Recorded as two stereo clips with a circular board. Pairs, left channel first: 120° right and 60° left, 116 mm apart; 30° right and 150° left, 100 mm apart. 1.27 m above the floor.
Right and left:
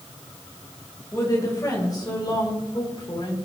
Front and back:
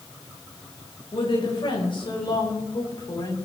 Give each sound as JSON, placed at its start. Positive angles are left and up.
{"t": 1.1, "sound": "a woman speaking", "azimuth_deg": -60, "distance_m": 5.0}